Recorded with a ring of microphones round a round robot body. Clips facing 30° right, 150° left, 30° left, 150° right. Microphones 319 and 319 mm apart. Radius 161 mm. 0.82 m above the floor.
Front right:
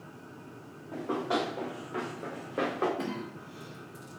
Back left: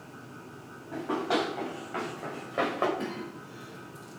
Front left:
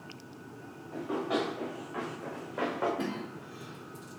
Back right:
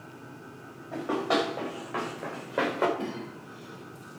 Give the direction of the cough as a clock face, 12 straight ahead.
1 o'clock.